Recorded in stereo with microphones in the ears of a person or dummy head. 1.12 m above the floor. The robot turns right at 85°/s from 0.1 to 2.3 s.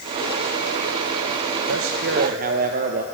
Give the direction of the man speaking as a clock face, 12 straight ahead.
3 o'clock.